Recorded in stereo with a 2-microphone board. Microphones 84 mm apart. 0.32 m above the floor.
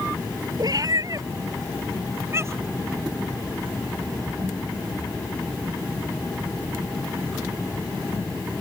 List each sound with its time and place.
0.6 s a cat meowing: 55° right (ahead or behind); by 2.8 s 30° right (ahead or behind)